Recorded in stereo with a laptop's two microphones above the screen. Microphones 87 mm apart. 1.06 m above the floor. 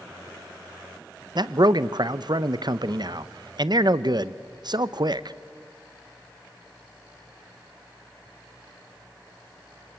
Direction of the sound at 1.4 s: 60° right (ahead or behind).